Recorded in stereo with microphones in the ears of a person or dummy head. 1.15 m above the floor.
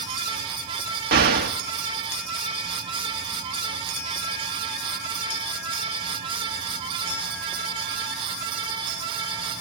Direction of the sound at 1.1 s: 50° right (ahead or behind).